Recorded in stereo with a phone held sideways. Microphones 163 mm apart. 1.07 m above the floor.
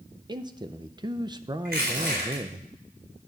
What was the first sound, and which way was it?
A man speaking, 25° right (ahead or behind).